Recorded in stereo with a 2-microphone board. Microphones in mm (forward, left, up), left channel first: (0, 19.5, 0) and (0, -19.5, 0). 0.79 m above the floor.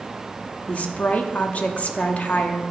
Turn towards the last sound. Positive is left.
turn(degrees=35)  # may be behind; listen again after turning